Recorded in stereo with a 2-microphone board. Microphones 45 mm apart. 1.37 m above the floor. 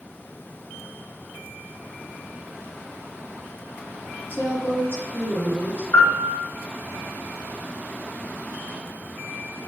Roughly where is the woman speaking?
Left.